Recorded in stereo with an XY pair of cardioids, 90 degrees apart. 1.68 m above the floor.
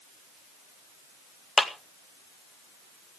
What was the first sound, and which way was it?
A clap, 40° left.